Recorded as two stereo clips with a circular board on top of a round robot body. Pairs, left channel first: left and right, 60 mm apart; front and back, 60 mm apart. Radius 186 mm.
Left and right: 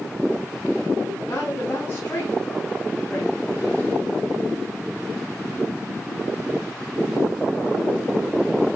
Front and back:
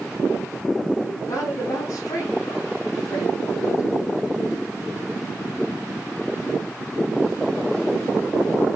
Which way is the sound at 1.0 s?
35° left.